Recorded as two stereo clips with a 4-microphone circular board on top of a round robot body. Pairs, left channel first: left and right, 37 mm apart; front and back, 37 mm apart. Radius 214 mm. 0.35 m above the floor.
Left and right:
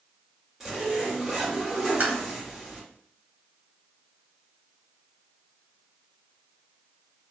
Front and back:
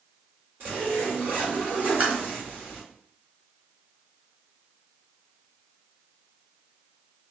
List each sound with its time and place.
0.6 s a zipper: 170° right, 1.6 m
2.0 s tapping: 135° right, 1.2 m